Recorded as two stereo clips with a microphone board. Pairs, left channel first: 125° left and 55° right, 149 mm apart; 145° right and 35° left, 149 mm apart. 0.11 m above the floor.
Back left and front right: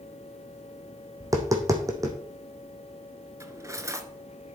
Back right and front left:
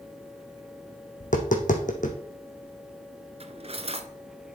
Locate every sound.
1.2 s tapping: 120° right, 1.9 m
3.4 s cutlery clinking: 10° left, 1.0 m